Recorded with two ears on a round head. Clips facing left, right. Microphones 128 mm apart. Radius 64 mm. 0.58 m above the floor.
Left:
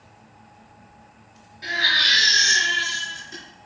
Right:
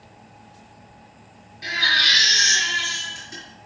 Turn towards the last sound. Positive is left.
turn(degrees=-5)  # may be behind; listen again after turning